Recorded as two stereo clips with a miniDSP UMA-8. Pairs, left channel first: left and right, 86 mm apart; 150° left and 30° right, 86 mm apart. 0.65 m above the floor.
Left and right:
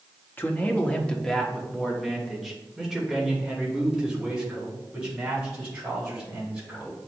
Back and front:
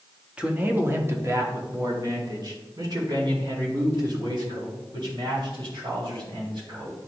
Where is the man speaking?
40° left, 0.9 m; by 7.0 s 10° right, 4.5 m.